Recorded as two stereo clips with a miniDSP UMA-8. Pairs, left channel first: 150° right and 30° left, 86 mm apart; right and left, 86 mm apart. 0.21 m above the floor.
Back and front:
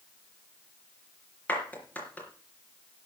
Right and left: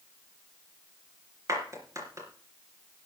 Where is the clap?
140° left, 3.5 m.